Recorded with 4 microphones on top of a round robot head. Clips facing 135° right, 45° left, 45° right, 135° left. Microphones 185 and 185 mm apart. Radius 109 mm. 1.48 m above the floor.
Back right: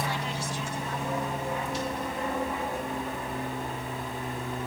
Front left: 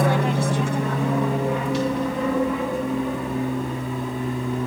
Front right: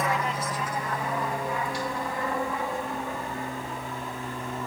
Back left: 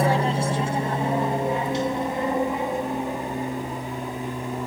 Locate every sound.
0.0 s an aircraft: 75° left; by 4.7 s 55° left